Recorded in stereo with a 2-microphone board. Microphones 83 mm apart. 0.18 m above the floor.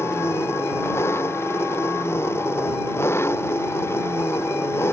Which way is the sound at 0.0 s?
30° left (ahead or behind).